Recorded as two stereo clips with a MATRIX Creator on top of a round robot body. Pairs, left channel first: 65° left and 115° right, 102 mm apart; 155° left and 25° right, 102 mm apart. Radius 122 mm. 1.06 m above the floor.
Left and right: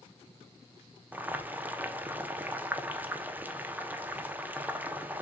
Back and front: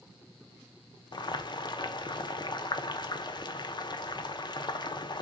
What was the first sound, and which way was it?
Boiling, straight behind.